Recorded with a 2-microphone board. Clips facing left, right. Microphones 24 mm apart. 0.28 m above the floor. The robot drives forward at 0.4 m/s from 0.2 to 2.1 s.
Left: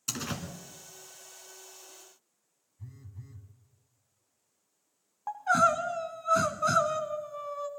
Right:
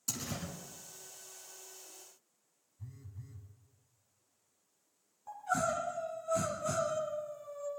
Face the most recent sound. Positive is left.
turn(degrees=75)  # may be behind; listen again after turning